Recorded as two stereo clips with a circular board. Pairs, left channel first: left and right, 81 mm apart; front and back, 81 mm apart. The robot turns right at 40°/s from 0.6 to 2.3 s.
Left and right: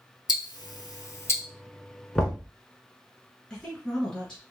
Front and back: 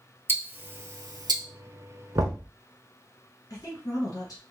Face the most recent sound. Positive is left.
turn(degrees=15)